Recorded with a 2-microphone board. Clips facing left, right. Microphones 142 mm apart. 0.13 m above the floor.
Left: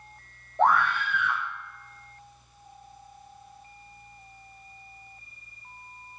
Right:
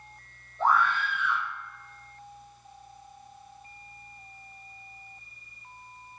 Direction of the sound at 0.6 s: 70° left (ahead or behind).